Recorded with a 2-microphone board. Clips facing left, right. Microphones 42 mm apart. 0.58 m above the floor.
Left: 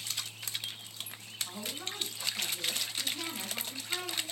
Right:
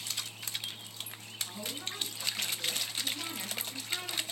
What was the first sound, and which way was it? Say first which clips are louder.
A woman speaking: even; 20° left (ahead or behind).